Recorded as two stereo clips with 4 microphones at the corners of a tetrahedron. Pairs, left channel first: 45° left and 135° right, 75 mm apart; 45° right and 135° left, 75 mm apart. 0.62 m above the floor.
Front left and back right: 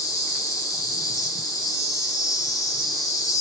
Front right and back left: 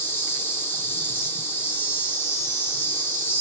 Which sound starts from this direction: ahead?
An insect, at 0.0 s.